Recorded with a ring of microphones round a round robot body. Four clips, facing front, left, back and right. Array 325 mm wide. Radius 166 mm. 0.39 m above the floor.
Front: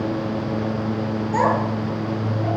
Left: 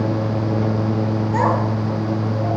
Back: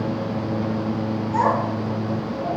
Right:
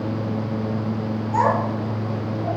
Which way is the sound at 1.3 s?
40° left.